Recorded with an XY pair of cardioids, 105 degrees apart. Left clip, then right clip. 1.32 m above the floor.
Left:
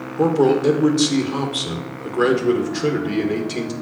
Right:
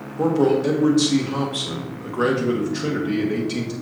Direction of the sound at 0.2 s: 20° left.